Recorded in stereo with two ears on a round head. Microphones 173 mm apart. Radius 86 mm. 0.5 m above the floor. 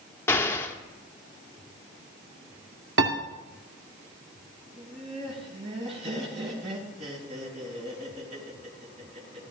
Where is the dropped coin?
I don't hear a dropped coin.